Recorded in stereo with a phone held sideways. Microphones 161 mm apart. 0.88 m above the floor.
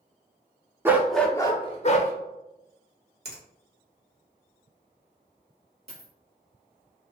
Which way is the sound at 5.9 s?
40° right (ahead or behind).